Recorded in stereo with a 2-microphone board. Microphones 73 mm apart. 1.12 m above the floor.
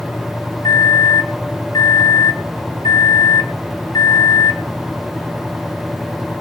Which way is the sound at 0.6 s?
65° left (ahead or behind).